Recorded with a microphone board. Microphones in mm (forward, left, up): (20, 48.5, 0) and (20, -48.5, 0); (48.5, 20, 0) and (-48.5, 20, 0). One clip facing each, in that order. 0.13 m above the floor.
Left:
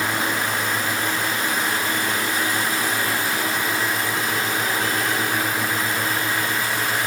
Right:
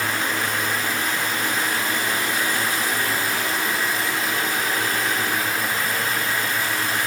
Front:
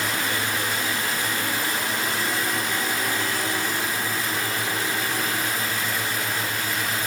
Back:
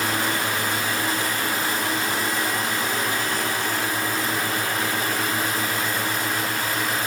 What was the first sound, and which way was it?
Only background noise.